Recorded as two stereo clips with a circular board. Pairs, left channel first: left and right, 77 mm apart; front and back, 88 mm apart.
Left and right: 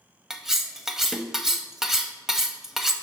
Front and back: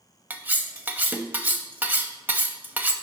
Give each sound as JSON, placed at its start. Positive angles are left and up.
{"t": 0.3, "sound": "cutlery clinking", "azimuth_deg": -165, "distance_m": 0.5}